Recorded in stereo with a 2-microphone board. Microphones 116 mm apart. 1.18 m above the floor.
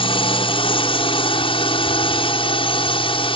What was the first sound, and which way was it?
A drone, 50° left (ahead or behind).